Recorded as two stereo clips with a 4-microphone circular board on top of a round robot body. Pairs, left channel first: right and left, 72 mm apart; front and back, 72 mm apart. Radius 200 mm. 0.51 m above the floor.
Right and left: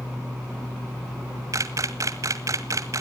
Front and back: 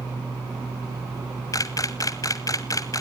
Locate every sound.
1.5 s a camera shutter: 45° left, 0.7 m